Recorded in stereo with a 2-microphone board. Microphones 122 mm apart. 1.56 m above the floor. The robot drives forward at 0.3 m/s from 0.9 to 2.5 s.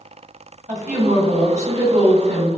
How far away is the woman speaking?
About 1.8 m.